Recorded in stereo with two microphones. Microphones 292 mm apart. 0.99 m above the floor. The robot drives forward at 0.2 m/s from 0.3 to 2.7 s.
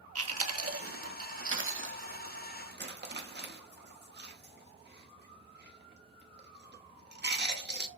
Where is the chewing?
55° right (ahead or behind), 0.6 m; by 7.9 s 35° right (ahead or behind), 0.9 m.